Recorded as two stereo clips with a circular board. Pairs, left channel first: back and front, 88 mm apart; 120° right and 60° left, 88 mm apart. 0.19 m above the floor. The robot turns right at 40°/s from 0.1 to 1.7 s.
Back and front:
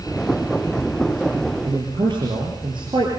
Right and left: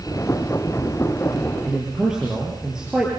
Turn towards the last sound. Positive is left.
turn(degrees=-25)